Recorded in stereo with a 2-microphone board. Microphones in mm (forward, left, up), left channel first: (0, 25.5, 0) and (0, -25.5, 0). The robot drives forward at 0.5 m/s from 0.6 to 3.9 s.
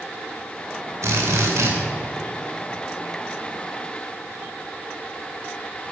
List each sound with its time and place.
1.0 s a drill: 70° right (ahead or behind), 3.5 m